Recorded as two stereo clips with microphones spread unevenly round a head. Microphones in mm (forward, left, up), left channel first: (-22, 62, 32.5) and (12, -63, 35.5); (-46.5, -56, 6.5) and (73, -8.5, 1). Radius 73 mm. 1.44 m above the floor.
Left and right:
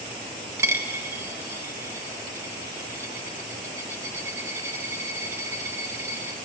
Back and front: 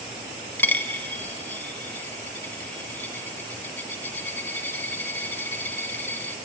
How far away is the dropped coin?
About 0.7 m.